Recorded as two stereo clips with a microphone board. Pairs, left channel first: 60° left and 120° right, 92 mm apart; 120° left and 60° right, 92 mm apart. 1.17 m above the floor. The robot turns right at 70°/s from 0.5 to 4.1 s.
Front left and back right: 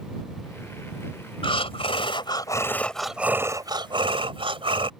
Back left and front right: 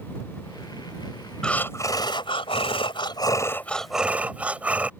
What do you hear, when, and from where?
1.4 s breathing: 35° left; by 4.9 s 135° right